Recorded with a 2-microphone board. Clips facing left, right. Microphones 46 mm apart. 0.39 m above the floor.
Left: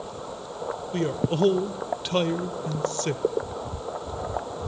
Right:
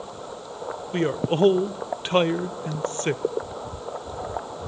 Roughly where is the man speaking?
Right.